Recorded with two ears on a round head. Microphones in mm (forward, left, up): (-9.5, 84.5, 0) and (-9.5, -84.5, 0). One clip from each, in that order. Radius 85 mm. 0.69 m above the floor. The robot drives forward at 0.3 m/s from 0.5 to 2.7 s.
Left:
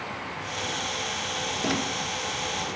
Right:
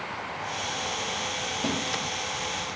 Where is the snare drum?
85° right, 5 m.